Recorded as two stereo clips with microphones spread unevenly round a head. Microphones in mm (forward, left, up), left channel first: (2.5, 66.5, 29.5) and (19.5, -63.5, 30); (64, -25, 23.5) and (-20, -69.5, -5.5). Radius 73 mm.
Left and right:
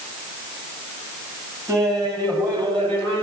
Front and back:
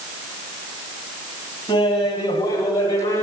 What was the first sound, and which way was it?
Laughter, 15° right.